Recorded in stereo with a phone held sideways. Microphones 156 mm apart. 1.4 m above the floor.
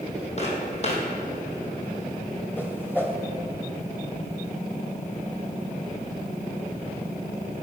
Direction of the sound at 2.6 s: 15° left (ahead or behind).